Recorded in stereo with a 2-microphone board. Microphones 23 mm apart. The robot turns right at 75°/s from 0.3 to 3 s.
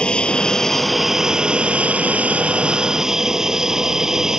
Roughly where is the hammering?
I don't hear hammering.